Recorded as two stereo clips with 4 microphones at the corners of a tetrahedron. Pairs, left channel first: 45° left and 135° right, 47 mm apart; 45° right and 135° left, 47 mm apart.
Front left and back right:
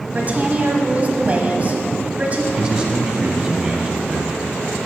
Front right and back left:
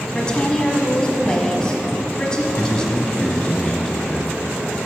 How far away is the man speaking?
About 1.2 m.